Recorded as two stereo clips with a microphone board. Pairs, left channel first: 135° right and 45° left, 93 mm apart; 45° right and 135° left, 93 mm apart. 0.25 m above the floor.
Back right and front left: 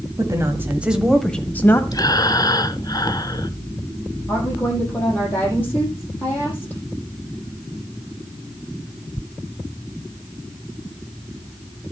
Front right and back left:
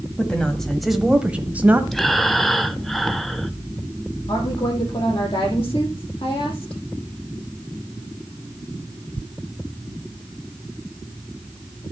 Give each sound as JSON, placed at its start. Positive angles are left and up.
{"t": 0.2, "sound": "a woman speaking", "azimuth_deg": 25, "distance_m": 1.5}
{"t": 1.9, "sound": "breathing", "azimuth_deg": -135, "distance_m": 0.7}
{"t": 4.3, "sound": "a woman speaking", "azimuth_deg": -65, "distance_m": 8.5}